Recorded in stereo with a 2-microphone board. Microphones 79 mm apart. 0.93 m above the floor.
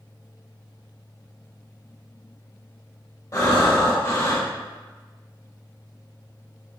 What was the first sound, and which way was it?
Breathing, 40° left (ahead or behind).